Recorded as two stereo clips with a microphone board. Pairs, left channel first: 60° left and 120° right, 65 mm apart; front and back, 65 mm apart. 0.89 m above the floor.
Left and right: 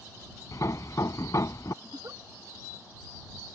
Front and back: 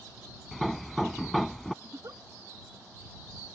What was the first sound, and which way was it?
Hammering, 90° left.